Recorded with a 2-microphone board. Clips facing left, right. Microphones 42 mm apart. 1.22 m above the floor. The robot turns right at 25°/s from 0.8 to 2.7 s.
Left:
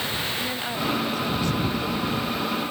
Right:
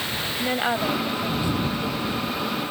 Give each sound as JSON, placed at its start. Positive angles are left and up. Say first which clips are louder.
{"t": 0.4, "sound": "a woman speaking", "louder": "right 4 dB", "side_deg": -30}